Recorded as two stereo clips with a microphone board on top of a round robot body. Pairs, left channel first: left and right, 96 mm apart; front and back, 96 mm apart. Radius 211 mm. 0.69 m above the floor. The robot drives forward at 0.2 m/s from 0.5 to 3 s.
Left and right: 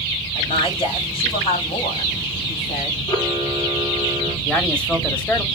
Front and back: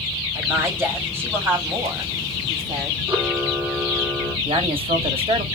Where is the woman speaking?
115° left, 4.5 m; by 3.0 s 120° left, 4.5 m.